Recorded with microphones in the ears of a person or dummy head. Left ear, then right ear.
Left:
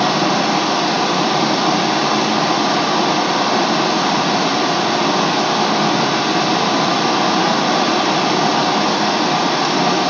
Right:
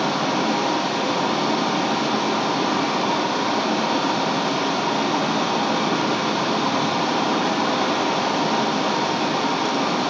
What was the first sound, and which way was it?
Running water, 75° left (ahead or behind).